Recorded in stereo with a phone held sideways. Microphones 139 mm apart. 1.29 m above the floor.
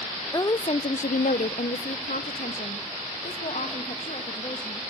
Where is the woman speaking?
25° left (ahead or behind), 0.5 m; by 4.8 s 50° left (ahead or behind), 2.5 m.